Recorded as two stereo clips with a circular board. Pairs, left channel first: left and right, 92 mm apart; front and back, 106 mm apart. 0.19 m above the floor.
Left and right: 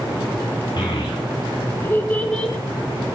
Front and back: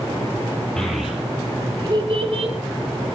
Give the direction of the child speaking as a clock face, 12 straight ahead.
9 o'clock.